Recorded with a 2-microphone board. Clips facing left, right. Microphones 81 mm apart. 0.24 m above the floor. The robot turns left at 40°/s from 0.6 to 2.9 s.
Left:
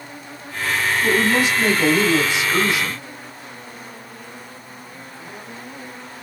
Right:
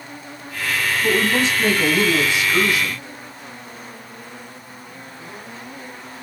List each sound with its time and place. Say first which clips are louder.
1.0 s a woman speaking: left 1 dB; 5° left (ahead or behind), 1.0 m; by 3.0 s 25° left (ahead or behind), 1.0 m